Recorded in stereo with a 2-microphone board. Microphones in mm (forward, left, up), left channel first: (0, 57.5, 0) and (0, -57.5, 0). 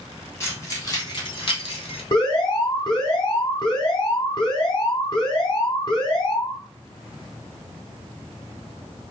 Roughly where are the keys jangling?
Left.